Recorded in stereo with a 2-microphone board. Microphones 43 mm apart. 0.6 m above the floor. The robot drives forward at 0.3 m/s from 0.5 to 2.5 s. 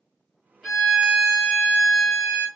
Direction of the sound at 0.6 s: 5° right (ahead or behind).